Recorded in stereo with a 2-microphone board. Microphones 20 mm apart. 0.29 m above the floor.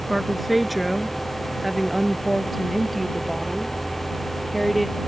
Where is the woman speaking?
Centre (ahead or behind); by 5.0 s 10° left (ahead or behind).